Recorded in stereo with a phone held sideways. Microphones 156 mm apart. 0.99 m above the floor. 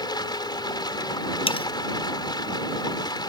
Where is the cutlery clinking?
35° left (ahead or behind).